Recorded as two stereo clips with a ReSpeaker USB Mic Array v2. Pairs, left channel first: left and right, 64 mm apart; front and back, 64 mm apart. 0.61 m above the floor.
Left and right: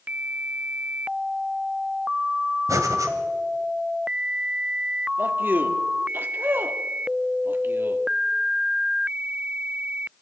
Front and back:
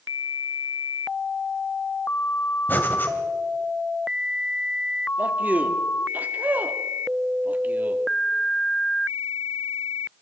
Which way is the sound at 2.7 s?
60° right.